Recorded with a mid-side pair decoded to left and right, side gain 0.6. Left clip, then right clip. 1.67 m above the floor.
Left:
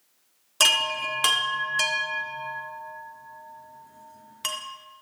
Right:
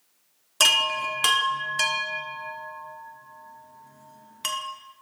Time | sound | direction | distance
0.6 | a chime | straight ahead | 1.2 m